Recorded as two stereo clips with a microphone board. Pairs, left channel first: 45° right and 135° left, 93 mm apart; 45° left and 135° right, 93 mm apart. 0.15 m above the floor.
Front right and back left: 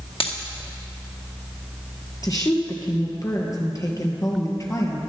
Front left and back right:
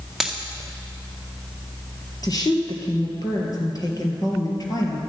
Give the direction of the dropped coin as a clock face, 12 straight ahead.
2 o'clock.